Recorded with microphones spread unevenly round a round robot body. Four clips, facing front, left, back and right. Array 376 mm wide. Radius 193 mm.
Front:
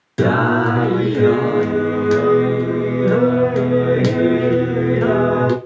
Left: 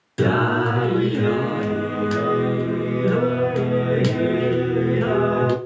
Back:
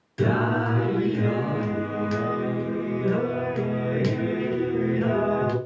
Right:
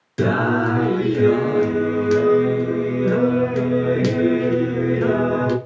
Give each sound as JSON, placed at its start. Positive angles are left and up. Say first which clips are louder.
{"t": 0.2, "sound": "singing", "louder": "right 1 dB, front 8 dB", "azimuth_deg": -5, "distance_m": 1.0}